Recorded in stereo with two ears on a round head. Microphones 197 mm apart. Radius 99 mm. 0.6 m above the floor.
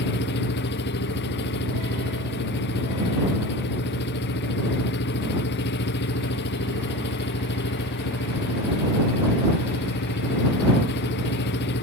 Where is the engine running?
50° left (ahead or behind).